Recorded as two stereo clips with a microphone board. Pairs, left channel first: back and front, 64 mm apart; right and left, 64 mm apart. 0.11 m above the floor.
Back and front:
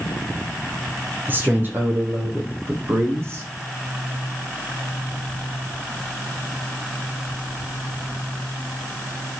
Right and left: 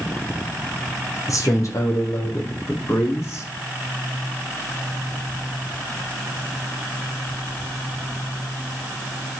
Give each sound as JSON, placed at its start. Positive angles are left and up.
{"t": 1.3, "sound": "a man speaking", "azimuth_deg": -60, "distance_m": 4.0}